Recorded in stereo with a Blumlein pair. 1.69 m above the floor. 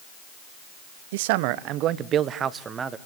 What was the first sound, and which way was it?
A man speaking, 55° right.